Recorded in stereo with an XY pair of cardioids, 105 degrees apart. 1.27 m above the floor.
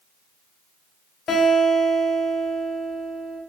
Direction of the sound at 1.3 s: 55° left.